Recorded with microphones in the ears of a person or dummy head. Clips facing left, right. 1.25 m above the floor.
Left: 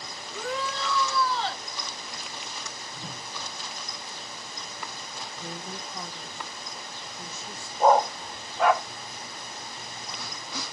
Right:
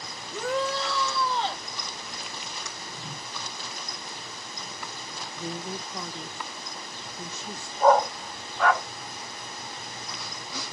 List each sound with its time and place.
0.3 s a shout: 50° right (ahead or behind), 1.3 m; by 1.6 s 20° right (ahead or behind), 1.6 m
2.9 s a whoosh: 50° left (ahead or behind), 2 m
5.4 s a woman speaking: 65° right (ahead or behind), 0.8 m
7.8 s a dog barking: 15° left (ahead or behind), 1.2 m